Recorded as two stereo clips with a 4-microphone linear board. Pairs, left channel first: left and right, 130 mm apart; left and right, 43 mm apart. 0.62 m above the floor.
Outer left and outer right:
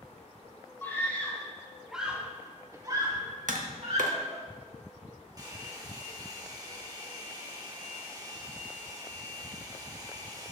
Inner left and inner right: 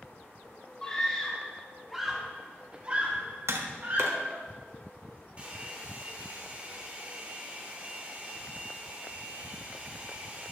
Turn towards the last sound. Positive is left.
turn(degrees=-30)  # may be behind; listen again after turning